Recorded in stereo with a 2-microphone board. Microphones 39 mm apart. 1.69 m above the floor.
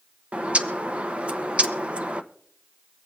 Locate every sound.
0.3 s a bird: 30° right (ahead or behind), 0.9 m